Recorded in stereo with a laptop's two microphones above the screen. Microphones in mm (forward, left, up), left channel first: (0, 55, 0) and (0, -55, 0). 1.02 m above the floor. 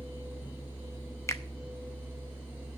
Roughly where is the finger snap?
Left.